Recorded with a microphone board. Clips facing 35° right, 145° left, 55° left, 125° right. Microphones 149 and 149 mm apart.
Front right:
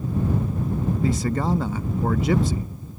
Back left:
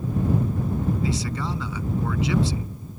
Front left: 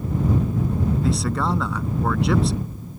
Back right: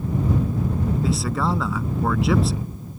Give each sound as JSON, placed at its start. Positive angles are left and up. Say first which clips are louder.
{"t": 1.0, "sound": "a man speaking", "louder": "front right 4 dB, even", "azimuth_deg": -35}